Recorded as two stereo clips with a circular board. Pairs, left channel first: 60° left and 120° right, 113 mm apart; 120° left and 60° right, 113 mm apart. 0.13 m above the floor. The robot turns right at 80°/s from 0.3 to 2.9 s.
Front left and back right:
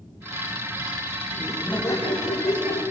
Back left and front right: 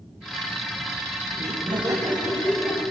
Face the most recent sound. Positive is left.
turn(degrees=80)